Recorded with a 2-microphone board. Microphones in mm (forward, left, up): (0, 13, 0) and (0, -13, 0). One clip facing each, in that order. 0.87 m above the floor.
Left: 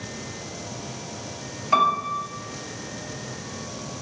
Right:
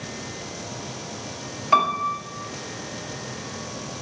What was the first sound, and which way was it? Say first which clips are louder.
A piano: even; 20° right (ahead or behind).